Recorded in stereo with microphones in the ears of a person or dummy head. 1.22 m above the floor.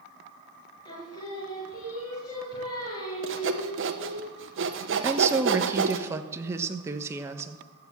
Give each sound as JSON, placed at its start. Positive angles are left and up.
{"t": 0.8, "sound": "singing", "side_deg": 20, "distance_m": 5.0}
{"t": 3.2, "sound": "sawing", "side_deg": -55, "distance_m": 1.0}
{"t": 5.0, "sound": "a woman speaking", "side_deg": -15, "distance_m": 1.2}